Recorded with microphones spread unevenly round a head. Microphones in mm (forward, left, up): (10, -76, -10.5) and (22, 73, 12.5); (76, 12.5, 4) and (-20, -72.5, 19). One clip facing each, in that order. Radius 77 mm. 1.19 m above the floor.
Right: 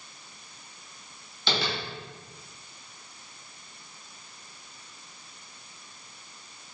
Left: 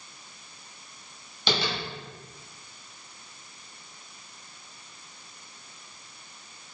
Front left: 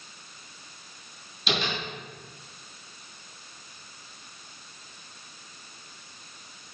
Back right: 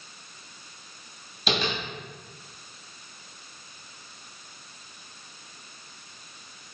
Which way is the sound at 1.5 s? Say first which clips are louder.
Left 1 dB, back right 2 dB; 160° left.